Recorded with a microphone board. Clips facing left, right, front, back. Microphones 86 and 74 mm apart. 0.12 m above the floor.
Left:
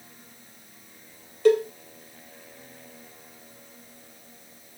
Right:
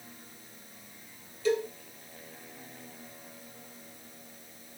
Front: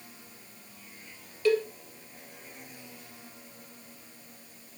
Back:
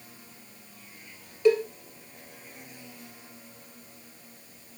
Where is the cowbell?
115° left, 2 m.